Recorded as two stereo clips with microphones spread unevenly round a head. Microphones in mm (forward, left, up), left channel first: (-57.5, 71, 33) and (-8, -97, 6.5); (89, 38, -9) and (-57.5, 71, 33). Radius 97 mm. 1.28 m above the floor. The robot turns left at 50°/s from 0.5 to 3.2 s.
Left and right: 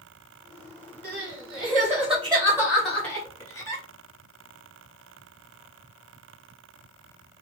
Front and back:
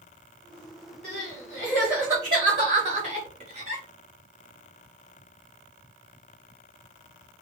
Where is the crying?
80° right, 1.3 m; by 3.8 s 170° left, 1.3 m.